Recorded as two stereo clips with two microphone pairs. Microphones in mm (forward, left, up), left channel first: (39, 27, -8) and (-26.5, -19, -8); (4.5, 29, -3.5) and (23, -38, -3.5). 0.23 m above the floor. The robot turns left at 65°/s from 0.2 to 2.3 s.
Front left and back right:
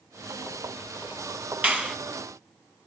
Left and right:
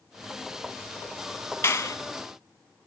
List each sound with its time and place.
1.6 s a clap: 150° left, 1.7 m; by 2.0 s 130° left, 1.7 m